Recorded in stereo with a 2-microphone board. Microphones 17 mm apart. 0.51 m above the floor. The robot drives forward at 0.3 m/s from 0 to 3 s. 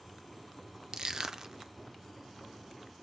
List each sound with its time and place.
0.9 s crushing: 45° right (ahead or behind), 0.6 m; by 1.7 s 40° right (ahead or behind), 0.7 m